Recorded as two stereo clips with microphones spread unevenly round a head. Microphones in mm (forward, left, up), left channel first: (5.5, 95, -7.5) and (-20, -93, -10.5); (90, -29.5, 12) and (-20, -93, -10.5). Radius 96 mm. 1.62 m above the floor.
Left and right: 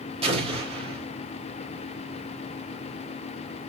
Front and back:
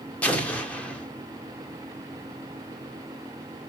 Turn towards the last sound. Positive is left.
turn(degrees=-40)